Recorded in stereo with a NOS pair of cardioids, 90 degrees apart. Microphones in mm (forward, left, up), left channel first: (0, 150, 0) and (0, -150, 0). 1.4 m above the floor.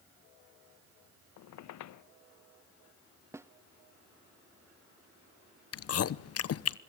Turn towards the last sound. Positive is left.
turn(degrees=50)